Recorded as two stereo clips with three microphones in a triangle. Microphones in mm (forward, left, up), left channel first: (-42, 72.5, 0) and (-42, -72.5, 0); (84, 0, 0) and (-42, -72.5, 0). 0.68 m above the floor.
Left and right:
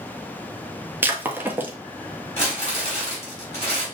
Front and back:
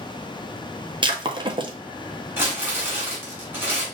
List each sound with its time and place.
1.0 s breaking glass: 155° right, 0.7 m
2.4 s crumpling: 135° left, 2.5 m